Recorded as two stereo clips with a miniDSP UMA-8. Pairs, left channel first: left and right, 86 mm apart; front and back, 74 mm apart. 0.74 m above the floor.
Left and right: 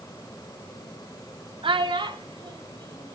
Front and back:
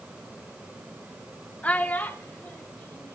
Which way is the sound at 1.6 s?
75° right.